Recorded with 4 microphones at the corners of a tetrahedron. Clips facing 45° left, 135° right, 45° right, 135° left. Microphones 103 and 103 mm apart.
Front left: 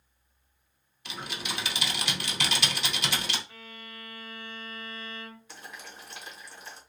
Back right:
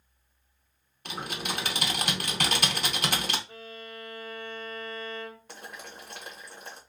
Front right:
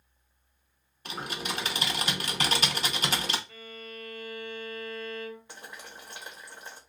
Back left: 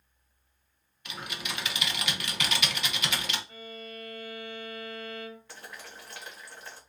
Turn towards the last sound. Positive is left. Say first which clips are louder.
# back right 2 dB, even
turn(degrees=-115)